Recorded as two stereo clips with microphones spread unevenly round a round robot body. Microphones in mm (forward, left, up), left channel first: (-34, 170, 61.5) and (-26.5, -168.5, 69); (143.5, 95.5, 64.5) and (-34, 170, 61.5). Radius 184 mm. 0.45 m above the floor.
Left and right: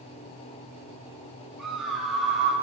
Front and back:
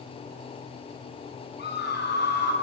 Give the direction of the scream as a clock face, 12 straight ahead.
12 o'clock.